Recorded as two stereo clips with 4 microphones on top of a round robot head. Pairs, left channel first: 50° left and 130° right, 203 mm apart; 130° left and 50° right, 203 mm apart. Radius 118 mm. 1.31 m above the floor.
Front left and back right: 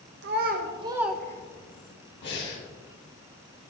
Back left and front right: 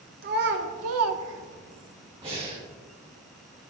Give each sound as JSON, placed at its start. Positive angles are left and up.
{"t": 0.2, "sound": "a child speaking", "azimuth_deg": -95, "distance_m": 0.8}
{"t": 2.2, "sound": "breathing", "azimuth_deg": 15, "distance_m": 2.5}